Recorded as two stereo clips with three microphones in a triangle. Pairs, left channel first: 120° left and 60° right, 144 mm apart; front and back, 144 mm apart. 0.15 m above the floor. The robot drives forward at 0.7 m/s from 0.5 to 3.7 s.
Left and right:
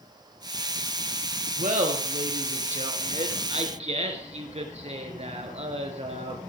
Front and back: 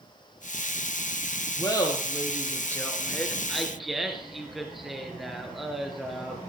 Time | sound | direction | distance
1.6 | laughter | 60° right | 3 m